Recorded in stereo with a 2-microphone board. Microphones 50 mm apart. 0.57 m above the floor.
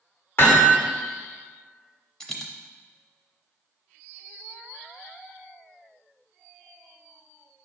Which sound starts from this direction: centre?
A dropped coin, at 2.2 s.